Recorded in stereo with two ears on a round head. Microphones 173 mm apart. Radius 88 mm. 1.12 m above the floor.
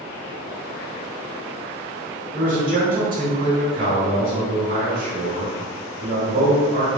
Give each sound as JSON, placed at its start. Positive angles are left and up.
{"t": 2.3, "sound": "a man speaking", "side_deg": -45, "distance_m": 1.9}